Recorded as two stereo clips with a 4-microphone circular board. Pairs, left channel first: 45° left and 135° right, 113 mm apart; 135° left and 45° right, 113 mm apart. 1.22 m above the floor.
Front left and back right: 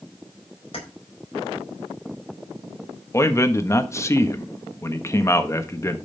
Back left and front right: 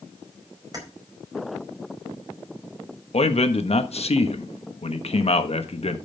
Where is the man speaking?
110° left, 1.3 m.